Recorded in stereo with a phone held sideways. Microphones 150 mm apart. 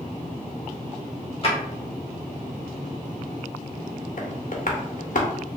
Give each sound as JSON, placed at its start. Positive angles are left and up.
{"t": 1.4, "sound": "a drawer", "side_deg": 40, "distance_m": 1.3}
{"t": 4.2, "sound": "tapping", "side_deg": 65, "distance_m": 0.7}